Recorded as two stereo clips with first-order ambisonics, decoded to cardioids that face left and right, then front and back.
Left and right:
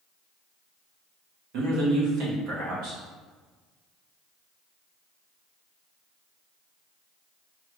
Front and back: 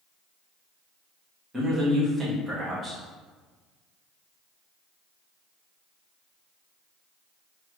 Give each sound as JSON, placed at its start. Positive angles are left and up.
{"t": 1.5, "sound": "a man speaking", "azimuth_deg": -105, "distance_m": 1.9}